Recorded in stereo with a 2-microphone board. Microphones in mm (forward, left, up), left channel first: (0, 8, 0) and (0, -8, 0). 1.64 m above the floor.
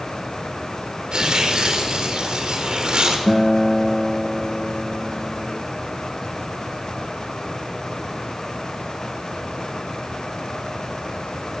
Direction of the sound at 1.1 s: 55° right (ahead or behind).